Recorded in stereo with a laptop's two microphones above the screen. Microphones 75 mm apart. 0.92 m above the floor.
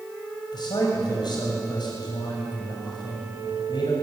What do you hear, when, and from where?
0.5 s a man speaking: 80° left, 6 m